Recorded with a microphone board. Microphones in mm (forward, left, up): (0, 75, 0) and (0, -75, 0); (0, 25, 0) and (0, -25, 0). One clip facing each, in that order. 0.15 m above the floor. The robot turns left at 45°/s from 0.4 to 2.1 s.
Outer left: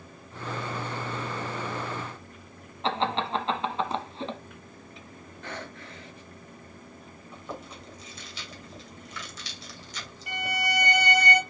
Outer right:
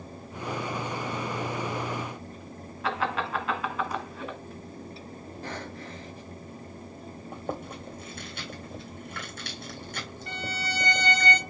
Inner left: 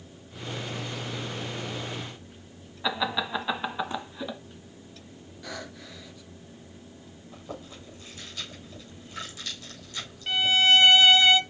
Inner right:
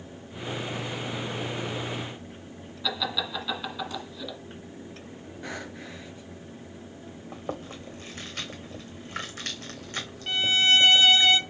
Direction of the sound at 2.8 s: 25° left (ahead or behind).